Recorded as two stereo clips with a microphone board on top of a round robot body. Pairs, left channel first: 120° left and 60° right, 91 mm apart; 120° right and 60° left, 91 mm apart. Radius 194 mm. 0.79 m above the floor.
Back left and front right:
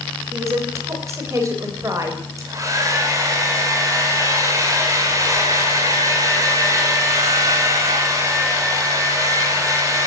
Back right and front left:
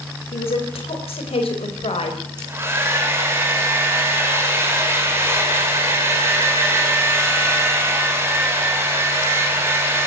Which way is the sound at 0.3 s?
120° right.